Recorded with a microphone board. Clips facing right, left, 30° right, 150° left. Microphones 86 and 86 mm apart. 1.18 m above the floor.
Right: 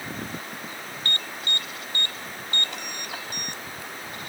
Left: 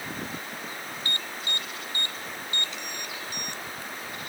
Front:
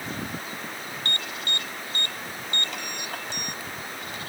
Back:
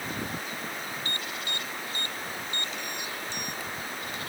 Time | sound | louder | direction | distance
1.1 | an alarm | right 4 dB, front 2 dB | 55° right | ?